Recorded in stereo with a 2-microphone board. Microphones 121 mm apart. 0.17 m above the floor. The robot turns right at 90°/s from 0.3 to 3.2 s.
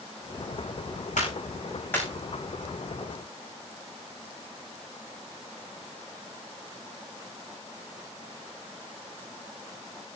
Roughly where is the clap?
Left.